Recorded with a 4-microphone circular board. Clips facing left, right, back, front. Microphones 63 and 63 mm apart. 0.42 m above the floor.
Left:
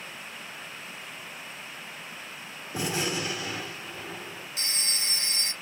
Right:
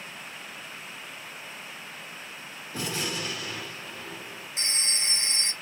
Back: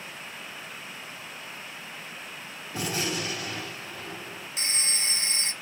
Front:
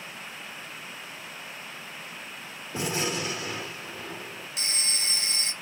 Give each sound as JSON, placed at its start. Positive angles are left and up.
{"t": 2.7, "sound": "a gunshot", "azimuth_deg": 35, "distance_m": 1.2}
{"t": 4.6, "sound": "a phone ringing", "azimuth_deg": -140, "distance_m": 0.6}